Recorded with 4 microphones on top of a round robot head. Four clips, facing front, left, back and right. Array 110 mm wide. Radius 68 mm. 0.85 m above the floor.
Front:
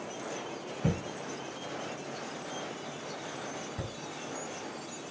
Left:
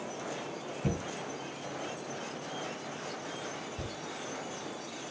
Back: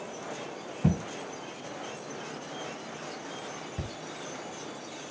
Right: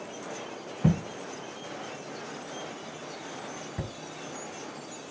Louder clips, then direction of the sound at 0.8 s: Right 8 dB, back 4 dB; 120° right.